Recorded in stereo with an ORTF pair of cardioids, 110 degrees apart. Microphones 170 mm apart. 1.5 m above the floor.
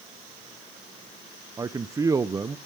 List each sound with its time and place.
1.6 s a man speaking: 20° right, 0.6 m